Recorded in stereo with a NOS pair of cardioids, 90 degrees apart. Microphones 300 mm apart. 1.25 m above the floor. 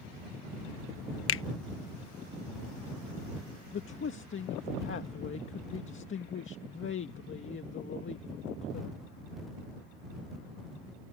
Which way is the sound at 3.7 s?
40° left.